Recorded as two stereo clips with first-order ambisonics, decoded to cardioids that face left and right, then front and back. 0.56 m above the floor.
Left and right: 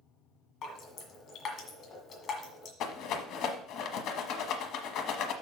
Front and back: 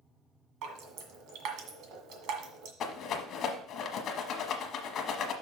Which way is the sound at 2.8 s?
55° left.